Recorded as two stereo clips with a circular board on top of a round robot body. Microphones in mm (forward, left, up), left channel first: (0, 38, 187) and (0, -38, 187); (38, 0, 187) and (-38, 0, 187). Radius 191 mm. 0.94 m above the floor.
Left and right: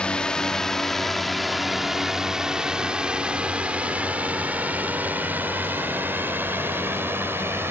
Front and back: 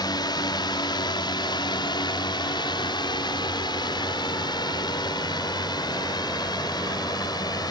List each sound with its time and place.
0.0 s a drone: 15° left; by 7.7 s 30° right